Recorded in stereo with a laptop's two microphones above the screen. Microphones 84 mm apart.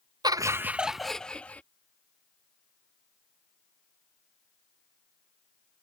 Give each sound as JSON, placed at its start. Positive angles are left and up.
{"t": 0.2, "sound": "laughter", "side_deg": -55}